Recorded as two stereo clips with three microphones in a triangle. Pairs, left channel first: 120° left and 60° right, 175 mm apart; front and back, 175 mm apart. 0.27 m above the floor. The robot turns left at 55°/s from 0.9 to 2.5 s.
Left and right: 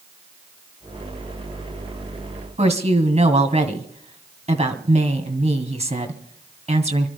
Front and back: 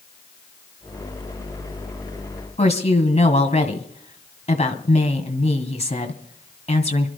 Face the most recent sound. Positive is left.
turn(degrees=-30)